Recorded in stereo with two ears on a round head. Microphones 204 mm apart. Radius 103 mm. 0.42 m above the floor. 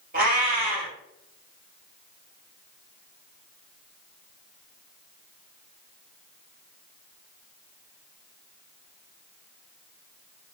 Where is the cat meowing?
40° right (ahead or behind), 3.5 m.